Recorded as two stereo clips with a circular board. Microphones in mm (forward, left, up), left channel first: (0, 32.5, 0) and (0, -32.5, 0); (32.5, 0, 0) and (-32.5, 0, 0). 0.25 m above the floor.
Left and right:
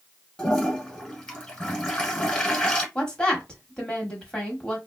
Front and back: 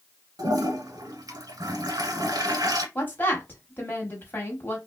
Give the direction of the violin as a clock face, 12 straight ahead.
I don't hear a violin.